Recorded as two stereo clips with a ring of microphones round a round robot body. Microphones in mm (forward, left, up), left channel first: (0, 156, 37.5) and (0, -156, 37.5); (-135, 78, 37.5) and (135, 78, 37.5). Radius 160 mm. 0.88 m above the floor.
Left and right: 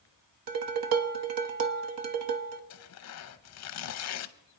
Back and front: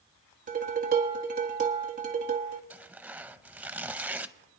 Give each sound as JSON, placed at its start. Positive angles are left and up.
{"t": 0.5, "sound": "dishes clattering", "azimuth_deg": -65, "distance_m": 1.0}
{"t": 2.7, "sound": "tearing paper", "azimuth_deg": 85, "distance_m": 0.7}